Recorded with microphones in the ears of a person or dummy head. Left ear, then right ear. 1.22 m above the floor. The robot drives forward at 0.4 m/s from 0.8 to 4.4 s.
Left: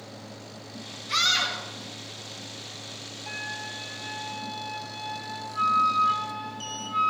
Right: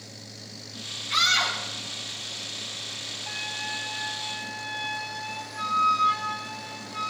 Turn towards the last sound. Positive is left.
turn(degrees=15)  # may be behind; listen again after turning